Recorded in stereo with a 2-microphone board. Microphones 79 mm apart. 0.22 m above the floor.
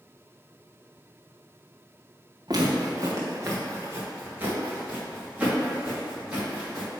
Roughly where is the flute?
No flute in this recording.